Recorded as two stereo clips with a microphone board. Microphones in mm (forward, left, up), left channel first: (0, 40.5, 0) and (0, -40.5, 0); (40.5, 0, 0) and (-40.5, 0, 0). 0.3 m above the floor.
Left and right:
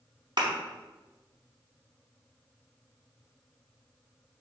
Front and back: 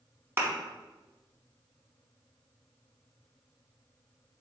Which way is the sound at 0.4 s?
120° right.